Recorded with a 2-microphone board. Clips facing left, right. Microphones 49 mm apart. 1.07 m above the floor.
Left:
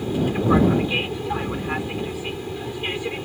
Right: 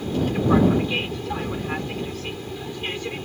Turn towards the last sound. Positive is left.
turn(degrees=10)  # may be behind; listen again after turning